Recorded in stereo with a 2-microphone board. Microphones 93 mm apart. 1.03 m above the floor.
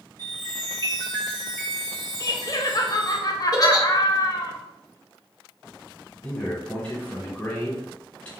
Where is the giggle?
40° left (ahead or behind), 0.5 m.